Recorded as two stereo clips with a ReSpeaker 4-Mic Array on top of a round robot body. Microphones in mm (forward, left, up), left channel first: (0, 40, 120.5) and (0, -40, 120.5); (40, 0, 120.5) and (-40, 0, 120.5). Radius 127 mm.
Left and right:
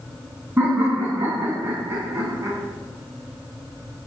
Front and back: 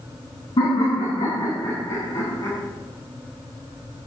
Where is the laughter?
25° right, 5.5 m; by 2.6 s 45° right, 5 m.